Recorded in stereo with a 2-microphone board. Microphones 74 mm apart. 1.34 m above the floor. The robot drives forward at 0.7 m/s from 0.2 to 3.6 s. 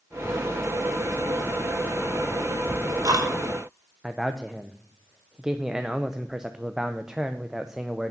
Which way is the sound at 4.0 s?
10° right (ahead or behind).